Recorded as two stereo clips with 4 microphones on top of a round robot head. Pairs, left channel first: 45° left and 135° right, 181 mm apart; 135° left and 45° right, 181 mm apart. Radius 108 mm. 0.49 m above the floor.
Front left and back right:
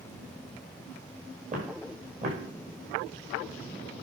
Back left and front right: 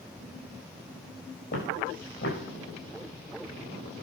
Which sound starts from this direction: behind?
Footsteps, at 1.5 s.